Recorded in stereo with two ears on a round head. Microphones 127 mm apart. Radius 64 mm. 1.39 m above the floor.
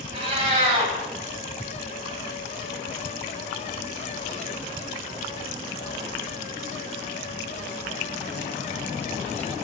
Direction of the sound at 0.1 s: 40° right (ahead or behind).